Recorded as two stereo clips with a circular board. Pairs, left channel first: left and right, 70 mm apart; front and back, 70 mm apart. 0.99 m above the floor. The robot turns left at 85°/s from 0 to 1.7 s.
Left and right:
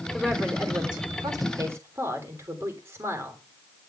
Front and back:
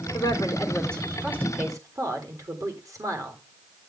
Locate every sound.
0.1 s a woman speaking: 10° right, 3 m; by 3.4 s 145° right, 3 m